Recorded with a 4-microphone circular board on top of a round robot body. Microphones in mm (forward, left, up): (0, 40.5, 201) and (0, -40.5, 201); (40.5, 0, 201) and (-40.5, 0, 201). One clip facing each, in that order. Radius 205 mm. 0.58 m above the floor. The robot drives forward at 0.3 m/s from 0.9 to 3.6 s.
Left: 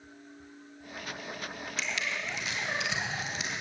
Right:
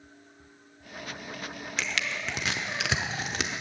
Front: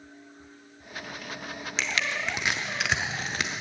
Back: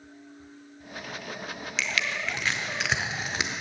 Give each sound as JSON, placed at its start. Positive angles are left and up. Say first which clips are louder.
{"t": 1.8, "sound": "crushing", "louder": "right 2 dB, even", "azimuth_deg": -55, "distance_m": 0.6}